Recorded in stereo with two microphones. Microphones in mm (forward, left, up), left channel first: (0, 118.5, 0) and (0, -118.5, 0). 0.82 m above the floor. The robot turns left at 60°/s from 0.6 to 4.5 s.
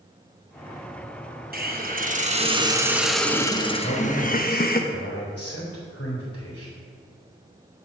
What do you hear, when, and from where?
1.5 s a hiss: 85° right, 1.0 m; by 4.8 s 95° left, 1.0 m
3.8 s a man speaking: 120° left, 3.5 m; by 6.7 s 80° left, 3.5 m